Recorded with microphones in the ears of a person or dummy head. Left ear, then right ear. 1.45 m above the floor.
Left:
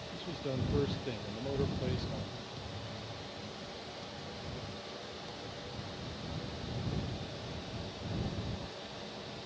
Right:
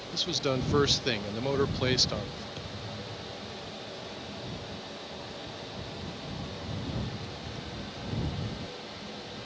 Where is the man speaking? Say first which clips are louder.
Right 12 dB; 55° right (ahead or behind).